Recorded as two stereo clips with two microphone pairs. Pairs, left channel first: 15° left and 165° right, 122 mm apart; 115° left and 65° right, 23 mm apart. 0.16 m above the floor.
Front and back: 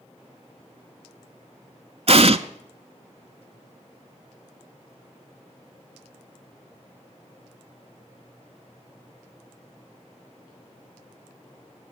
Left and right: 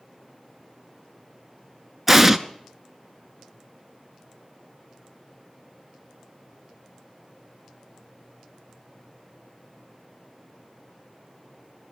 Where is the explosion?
140° right, 0.6 m.